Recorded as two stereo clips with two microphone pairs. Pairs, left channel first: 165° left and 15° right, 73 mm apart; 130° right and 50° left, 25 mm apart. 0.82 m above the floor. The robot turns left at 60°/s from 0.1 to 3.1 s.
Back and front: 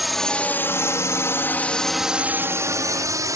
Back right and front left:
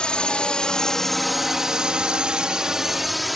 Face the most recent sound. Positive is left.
turn(degrees=-40)